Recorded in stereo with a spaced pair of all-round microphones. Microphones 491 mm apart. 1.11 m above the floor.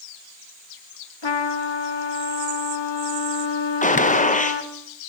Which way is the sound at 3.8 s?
15° left (ahead or behind).